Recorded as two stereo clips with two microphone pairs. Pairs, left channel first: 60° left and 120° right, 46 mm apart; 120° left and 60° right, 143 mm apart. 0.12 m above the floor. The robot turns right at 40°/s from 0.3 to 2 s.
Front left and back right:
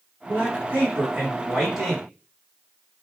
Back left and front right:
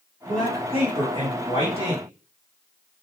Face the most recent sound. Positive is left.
turn(degrees=-35)